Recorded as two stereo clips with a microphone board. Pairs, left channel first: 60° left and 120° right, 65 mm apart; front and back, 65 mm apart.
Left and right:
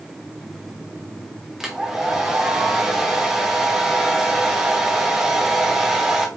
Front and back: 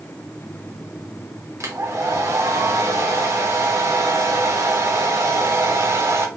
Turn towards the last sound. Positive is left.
turn(degrees=160)